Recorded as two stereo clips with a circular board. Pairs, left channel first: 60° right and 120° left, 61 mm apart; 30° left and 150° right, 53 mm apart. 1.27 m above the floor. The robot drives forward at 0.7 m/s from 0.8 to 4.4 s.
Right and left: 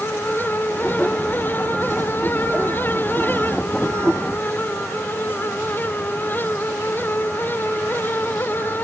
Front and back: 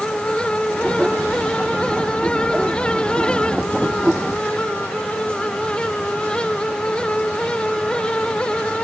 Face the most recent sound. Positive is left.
No sound to turn to.